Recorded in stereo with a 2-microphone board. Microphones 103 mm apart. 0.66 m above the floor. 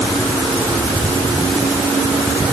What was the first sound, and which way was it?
Only background noise.